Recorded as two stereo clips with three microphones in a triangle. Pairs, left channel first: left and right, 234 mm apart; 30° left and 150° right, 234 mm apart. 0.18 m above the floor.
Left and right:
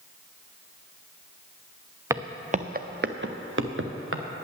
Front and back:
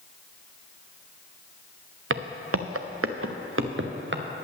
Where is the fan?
I don't hear a fan.